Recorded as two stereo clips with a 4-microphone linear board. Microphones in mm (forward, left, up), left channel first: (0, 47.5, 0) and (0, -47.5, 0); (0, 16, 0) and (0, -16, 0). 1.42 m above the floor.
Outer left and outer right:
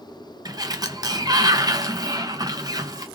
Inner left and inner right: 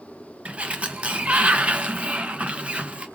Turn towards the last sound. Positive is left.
turn(degrees=-40)  # may be behind; listen again after turning